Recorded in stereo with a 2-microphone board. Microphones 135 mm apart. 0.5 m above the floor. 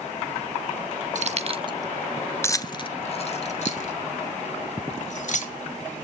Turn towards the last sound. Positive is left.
turn(degrees=60)  # may be behind; listen again after turning